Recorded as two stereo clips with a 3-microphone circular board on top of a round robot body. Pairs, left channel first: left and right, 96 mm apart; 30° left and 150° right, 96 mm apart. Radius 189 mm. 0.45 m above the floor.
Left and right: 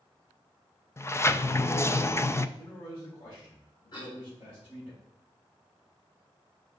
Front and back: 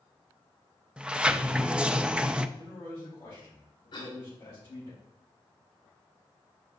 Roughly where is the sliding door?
Behind left.